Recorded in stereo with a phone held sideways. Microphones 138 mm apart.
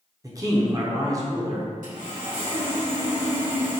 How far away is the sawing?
About 1.8 m.